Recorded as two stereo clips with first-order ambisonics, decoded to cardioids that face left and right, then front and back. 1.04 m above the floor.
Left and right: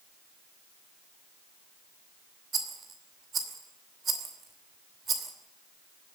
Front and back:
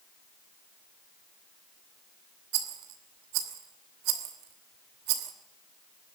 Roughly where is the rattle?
Behind.